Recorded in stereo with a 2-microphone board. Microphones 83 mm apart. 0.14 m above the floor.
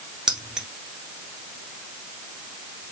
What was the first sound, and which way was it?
Keys jangling, 10° right (ahead or behind).